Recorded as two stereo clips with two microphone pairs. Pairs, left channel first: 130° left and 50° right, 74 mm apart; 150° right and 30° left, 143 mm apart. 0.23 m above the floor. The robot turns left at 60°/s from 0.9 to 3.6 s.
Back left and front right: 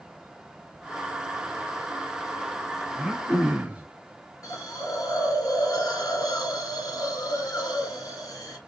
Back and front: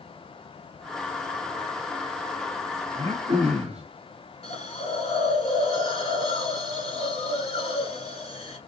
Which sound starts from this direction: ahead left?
Throat clearing, at 2.9 s.